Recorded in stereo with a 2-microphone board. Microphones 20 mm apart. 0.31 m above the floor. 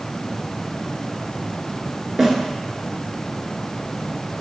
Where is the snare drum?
20° right (ahead or behind), 0.6 m.